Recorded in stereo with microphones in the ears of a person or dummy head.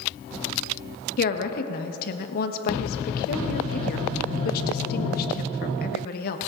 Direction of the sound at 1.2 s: 55° left (ahead or behind).